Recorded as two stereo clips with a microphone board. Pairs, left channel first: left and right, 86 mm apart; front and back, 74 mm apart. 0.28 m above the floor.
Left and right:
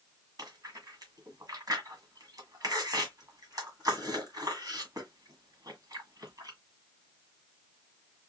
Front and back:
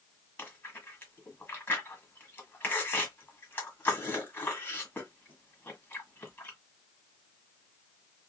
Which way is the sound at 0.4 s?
60° right.